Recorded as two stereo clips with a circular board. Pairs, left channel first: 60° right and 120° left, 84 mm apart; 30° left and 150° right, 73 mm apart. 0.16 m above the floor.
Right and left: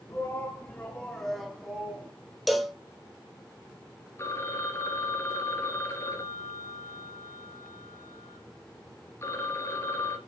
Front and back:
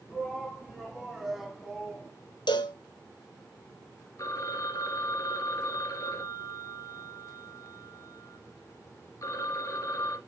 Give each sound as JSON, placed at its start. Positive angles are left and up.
{"t": 0.1, "sound": "a shout", "azimuth_deg": -60, "distance_m": 1.8}
{"t": 2.5, "sound": "a cowbell", "azimuth_deg": 30, "distance_m": 1.0}
{"t": 4.2, "sound": "a phone ringing", "azimuth_deg": -5, "distance_m": 1.5}